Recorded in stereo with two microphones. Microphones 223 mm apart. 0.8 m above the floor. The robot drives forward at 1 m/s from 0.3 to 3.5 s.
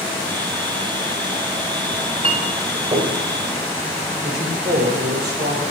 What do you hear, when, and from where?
1.9 s a clink: 35° right (ahead or behind), 1.6 m; by 3.2 s 20° right (ahead or behind), 2.5 m
4.2 s a man speaking: 50° right (ahead or behind), 4 m